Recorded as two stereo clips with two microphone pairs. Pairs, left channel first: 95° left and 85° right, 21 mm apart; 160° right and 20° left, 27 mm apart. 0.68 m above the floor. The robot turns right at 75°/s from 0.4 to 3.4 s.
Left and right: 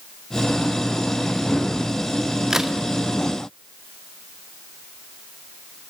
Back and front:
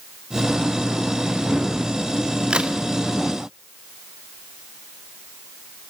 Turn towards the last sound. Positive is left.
turn(degrees=45)